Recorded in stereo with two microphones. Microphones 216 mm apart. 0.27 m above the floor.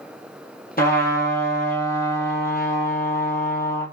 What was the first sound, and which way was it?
A trumpet, 45° left (ahead or behind).